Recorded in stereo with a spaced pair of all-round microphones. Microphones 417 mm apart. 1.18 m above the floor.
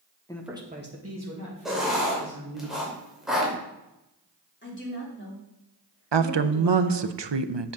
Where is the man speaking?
10° left (ahead or behind), 1.3 m; by 2.6 s 60° right (ahead or behind), 4 m.